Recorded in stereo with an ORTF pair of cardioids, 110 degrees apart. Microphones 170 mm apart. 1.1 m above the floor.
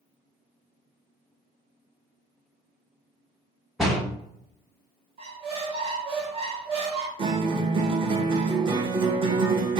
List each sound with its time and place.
3.8 s a door slam: straight ahead, 0.7 m
5.2 s a squeak: 35° right, 1.0 m
7.2 s a guitar: 30° right, 0.6 m